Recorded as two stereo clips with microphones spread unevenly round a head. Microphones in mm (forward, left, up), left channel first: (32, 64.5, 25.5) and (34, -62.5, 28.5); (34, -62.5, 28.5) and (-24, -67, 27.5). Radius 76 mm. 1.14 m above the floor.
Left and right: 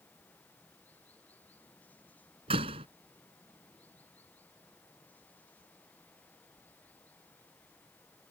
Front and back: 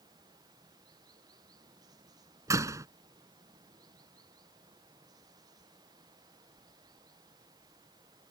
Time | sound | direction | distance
0.0 | running water | 170° left | ?
2.5 | a door slam | 145° right | ?